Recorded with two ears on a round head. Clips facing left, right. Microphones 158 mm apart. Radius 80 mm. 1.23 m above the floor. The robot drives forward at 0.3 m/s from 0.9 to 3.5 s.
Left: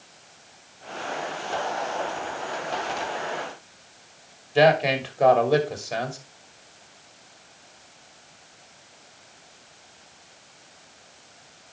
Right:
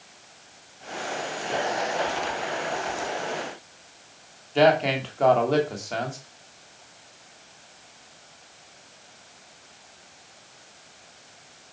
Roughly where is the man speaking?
Centre.